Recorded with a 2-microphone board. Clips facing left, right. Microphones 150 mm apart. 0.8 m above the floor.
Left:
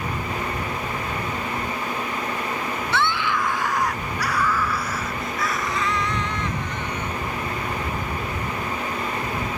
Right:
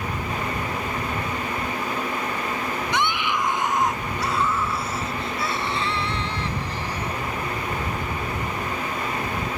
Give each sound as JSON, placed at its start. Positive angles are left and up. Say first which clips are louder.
{"t": 2.9, "sound": "a scream", "louder": "left 2 dB", "side_deg": -15}